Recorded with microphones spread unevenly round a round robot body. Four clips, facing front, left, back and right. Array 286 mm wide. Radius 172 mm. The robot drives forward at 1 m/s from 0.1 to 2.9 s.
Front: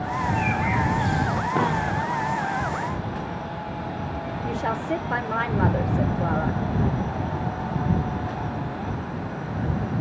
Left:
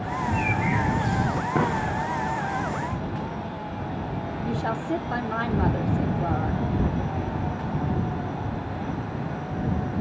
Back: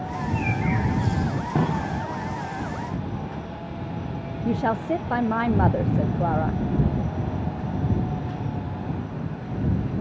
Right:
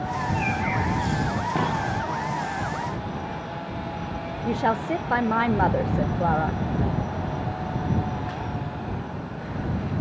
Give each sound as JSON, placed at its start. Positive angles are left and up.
{"t": 0.1, "sound": "a bird", "azimuth_deg": 175, "distance_m": 0.7}
{"t": 1.6, "sound": "a dropped coin", "azimuth_deg": 175, "distance_m": 4.0}
{"t": 4.5, "sound": "a woman speaking", "azimuth_deg": -125, "distance_m": 0.7}